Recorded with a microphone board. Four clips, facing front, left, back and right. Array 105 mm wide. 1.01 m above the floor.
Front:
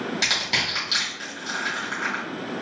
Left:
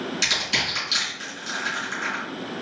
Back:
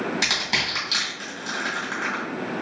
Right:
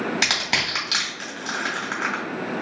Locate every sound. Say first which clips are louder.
0.2 s crushing: right 2 dB, back 1 dB; 90° right, 2.0 m